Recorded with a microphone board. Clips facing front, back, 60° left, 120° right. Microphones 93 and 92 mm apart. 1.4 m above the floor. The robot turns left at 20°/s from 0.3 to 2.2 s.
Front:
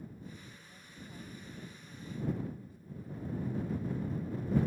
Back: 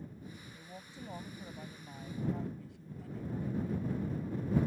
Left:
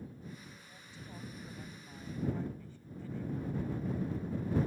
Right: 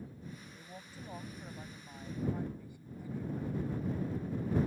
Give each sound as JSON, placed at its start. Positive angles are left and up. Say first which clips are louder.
{"t": 0.5, "sound": "a woman speaking", "louder": "back 4 dB, right 4 dB", "azimuth_deg": -165}